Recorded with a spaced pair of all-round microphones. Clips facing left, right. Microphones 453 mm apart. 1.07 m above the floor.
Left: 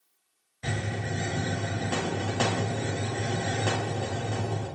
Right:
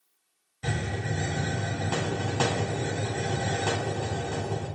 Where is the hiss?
25° right (ahead or behind), 1.5 m.